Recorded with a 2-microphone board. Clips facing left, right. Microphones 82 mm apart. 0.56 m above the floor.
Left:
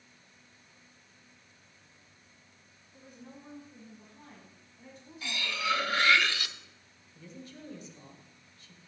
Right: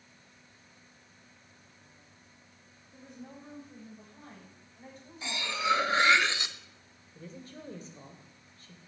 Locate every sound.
2.9 s a woman speaking: 70° right (ahead or behind), 4 m; by 6.2 s 25° right (ahead or behind), 3 m
5.2 s cutlery clinking: 20° right (ahead or behind), 0.6 m
7.2 s a woman speaking: 40° right (ahead or behind), 2 m